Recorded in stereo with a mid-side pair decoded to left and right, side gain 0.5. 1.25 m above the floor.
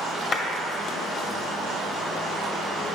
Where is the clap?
50° left, 1.6 m.